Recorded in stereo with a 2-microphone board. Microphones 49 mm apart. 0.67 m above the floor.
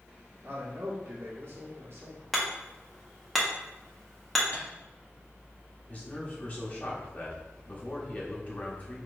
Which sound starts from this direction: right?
A man speaking, at 0.4 s.